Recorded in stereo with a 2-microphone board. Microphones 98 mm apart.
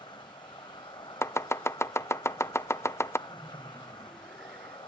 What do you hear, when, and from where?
0.0 s an insect: 55° left (ahead or behind), 0.9 m
1.2 s chopping: 30° left (ahead or behind), 0.5 m
3.3 s laughter: centre (ahead or behind), 5 m